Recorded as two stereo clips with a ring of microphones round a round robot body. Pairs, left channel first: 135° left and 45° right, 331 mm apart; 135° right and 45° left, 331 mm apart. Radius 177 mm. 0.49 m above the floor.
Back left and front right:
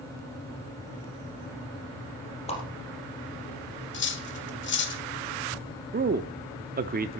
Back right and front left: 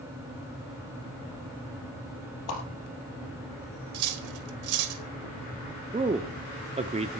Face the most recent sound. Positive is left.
turn(degrees=-10)